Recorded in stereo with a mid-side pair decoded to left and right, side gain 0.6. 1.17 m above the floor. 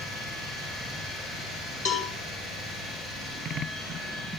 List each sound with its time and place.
1.9 s a cowbell: 60° left, 3.5 m